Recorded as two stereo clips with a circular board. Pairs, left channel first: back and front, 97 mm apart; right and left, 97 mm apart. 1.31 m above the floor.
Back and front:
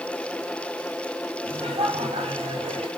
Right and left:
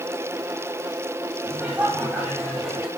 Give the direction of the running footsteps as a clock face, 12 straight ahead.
No running footsteps in this recording.